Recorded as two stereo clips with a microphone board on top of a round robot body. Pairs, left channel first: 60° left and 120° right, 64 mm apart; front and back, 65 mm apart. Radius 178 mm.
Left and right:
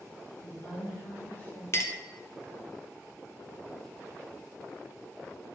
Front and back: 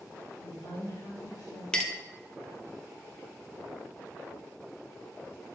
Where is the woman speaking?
5° left, 3 m.